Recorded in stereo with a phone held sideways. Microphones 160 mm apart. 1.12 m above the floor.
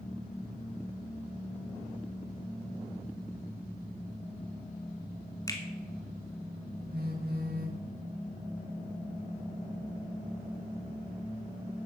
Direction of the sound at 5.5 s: 20° left (ahead or behind).